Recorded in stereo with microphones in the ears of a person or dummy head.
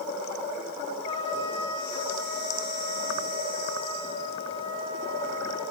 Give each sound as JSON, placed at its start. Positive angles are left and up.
{"t": 1.0, "sound": "a trumpet", "side_deg": 35, "distance_m": 8.5}